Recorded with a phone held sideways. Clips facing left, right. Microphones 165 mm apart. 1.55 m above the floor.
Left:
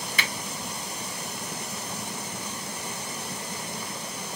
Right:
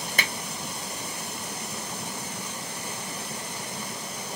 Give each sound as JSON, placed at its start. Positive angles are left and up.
{"t": 0.2, "sound": "a finger snap", "side_deg": -45, "distance_m": 0.9}